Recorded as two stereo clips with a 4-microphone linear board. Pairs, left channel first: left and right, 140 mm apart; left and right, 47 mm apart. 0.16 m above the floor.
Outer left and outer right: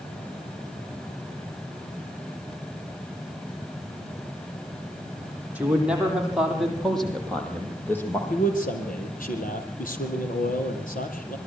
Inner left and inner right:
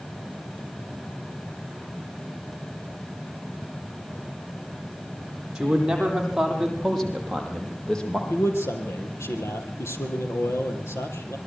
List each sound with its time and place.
5.5 s a man speaking: 10° right (ahead or behind), 8.5 m; by 8.2 s 15° left (ahead or behind), 6.5 m
8.3 s a man speaking: 75° left (ahead or behind), 5 m